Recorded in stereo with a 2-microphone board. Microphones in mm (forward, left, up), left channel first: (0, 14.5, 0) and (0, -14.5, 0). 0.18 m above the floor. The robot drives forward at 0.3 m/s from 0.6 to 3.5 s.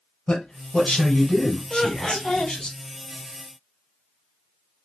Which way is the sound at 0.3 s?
30° left (ahead or behind).